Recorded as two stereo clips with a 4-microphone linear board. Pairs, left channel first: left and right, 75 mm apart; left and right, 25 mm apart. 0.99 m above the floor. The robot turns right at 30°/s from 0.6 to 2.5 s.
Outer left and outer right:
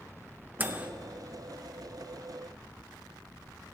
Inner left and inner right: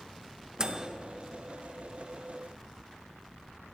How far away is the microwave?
About 0.8 m.